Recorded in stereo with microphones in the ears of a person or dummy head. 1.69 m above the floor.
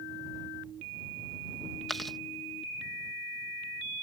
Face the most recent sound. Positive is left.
turn(degrees=5)  # may be behind; listen again after turning